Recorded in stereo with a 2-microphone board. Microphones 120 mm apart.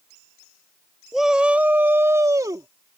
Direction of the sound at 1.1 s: 5° right (ahead or behind).